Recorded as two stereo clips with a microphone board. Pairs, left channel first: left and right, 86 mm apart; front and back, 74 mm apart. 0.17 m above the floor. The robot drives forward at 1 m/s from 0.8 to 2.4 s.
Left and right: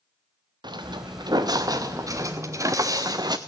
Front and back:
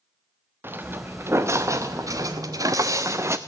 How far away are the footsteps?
About 1.4 m.